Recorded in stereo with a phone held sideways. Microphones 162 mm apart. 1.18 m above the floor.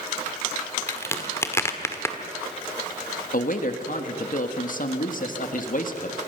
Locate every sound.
0.9 s a crack: 15° left (ahead or behind), 1.7 m
3.3 s a man speaking: 60° left (ahead or behind), 1.5 m